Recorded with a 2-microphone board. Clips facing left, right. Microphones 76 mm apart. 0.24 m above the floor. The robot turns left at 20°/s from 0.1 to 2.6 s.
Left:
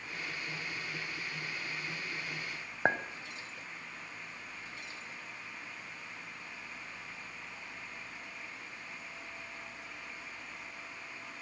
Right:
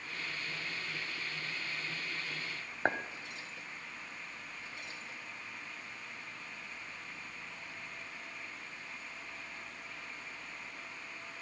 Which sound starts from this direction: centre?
A clink, at 2.9 s.